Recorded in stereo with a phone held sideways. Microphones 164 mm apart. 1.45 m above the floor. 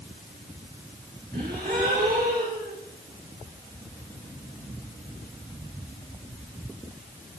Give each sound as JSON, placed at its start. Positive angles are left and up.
{"t": 1.3, "sound": "a gasp", "side_deg": -70, "distance_m": 5.5}